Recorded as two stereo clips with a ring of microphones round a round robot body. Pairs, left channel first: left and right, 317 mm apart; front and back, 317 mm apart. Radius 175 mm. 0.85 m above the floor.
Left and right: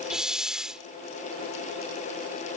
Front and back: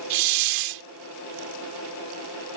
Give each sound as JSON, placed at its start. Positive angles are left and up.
{"t": 0.1, "sound": "a hiss", "azimuth_deg": 180}